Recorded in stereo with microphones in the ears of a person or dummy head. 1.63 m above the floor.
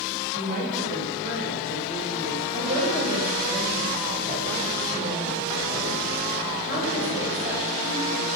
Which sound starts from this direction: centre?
A woman speaking, at 2.5 s.